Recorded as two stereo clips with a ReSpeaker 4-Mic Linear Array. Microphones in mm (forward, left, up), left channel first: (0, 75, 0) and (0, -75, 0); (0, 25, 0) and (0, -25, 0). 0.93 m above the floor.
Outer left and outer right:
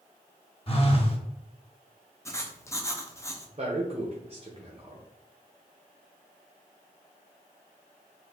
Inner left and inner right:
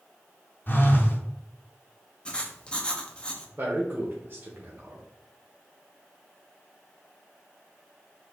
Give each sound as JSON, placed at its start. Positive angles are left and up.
{"t": 0.7, "sound": "a phone buzzing", "side_deg": 40, "distance_m": 0.8}
{"t": 2.2, "sound": "writing", "side_deg": 20, "distance_m": 0.6}
{"t": 3.6, "sound": "a man speaking", "side_deg": -40, "distance_m": 0.8}